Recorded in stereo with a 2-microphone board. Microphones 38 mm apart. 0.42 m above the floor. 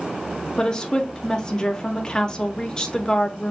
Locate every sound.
0.6 s a woman speaking: 25° left (ahead or behind), 0.8 m